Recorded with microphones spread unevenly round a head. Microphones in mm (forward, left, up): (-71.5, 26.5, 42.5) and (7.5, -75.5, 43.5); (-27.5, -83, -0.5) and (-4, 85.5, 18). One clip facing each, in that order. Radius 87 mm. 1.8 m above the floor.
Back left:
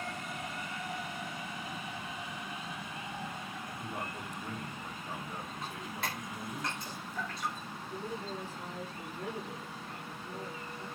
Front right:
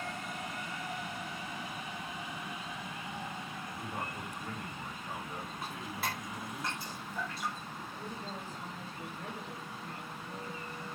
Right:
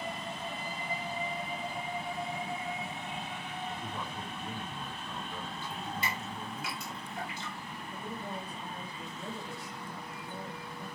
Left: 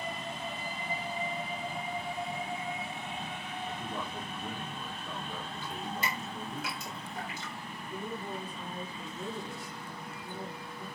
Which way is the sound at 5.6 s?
35° left.